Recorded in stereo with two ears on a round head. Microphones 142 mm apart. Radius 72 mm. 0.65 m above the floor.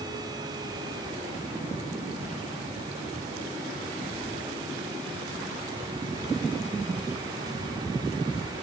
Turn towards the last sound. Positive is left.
No sound to turn to.